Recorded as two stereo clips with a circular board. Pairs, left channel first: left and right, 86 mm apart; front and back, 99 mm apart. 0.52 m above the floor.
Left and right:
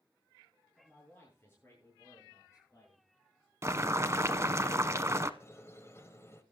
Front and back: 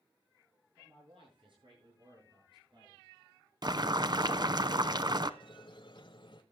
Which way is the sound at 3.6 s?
145° right.